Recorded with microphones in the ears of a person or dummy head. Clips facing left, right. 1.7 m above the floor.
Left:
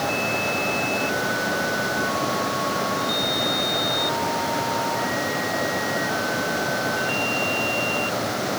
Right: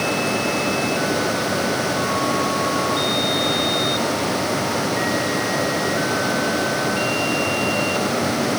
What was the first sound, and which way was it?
Only background noise.